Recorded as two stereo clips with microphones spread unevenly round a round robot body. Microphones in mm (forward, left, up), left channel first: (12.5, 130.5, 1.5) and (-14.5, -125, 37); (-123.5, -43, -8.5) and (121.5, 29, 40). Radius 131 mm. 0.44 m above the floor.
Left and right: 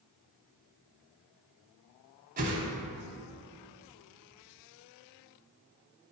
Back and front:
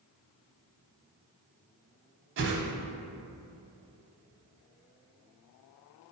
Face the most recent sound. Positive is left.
turn(degrees=-35)